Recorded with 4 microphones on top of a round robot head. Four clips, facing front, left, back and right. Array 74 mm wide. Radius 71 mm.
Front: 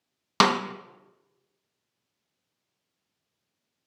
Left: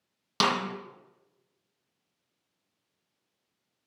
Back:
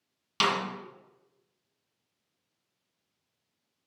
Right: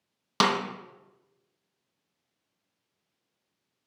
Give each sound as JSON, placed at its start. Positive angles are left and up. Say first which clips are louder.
{"t": 0.4, "sound": "a snare drum", "louder": "right 2 dB, front 6 dB", "azimuth_deg": -15, "distance_m": 0.7}